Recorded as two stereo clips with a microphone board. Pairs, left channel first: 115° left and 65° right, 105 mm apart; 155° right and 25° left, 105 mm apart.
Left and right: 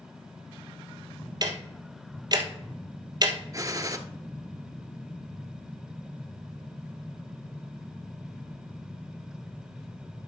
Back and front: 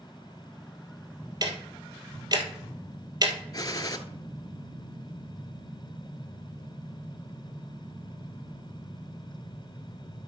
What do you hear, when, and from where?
1.4 s ticking: 25° right, 1.3 m
3.5 s a gunshot: 115° right, 0.7 m